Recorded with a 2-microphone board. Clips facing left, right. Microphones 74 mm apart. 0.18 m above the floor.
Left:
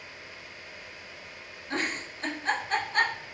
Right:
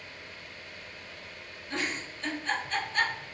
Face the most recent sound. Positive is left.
turn(degrees=45)  # may be behind; listen again after turning